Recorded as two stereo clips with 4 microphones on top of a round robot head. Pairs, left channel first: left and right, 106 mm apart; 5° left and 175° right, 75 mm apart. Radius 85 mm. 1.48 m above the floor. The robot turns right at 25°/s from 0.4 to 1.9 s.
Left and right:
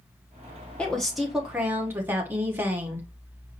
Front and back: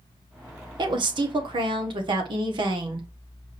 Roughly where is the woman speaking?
Behind.